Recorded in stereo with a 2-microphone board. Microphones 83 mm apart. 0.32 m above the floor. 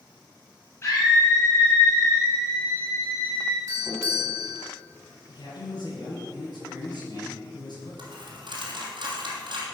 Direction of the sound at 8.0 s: 70° right (ahead or behind).